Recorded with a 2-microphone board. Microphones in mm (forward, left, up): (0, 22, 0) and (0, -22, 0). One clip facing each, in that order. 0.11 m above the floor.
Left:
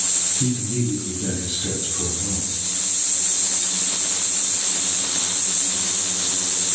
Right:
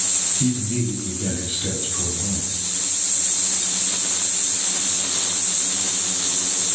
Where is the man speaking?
20° right (ahead or behind), 1.6 m.